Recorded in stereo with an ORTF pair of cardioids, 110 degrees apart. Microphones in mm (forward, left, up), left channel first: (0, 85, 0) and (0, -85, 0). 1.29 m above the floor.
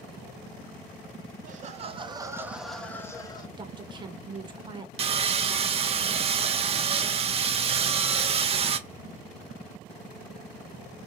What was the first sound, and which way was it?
Laughter, 50° right.